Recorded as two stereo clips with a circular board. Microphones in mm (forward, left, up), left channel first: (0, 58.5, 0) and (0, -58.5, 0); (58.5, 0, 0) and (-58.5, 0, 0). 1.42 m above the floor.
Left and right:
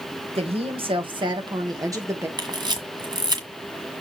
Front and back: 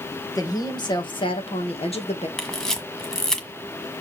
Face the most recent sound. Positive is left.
turn(degrees=-85)